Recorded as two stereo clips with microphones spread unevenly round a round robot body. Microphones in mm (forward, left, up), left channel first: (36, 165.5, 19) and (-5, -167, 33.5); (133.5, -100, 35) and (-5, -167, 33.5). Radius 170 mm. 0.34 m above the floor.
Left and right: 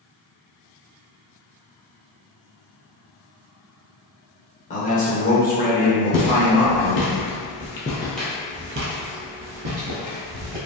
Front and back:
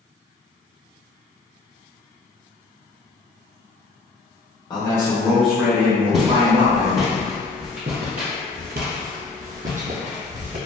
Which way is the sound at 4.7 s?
55° left.